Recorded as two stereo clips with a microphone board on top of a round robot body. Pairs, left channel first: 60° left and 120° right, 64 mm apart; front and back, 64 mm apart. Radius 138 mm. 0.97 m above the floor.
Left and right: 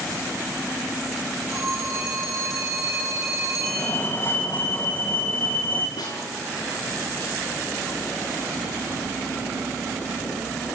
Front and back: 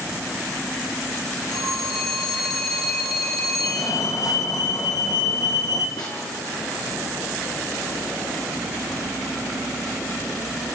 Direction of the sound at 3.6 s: 10° left.